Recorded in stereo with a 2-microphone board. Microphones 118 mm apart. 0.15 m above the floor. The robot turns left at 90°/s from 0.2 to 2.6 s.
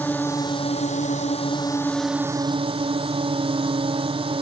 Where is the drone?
165° left; by 4.4 s 50° right.